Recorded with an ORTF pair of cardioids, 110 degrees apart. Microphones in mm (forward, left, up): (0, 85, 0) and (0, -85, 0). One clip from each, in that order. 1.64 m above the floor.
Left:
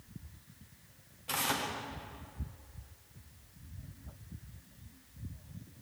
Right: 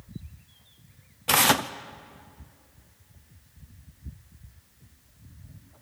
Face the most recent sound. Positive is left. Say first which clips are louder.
# right 12 dB
turn(degrees=-70)